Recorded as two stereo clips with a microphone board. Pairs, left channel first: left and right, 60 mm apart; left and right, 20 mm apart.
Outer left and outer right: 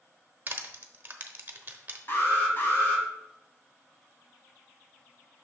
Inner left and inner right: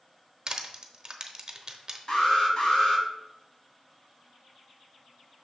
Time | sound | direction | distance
0.5 | crushing | 35° right (ahead or behind) | 0.7 m
2.1 | an alarm | 40° left (ahead or behind) | 1.7 m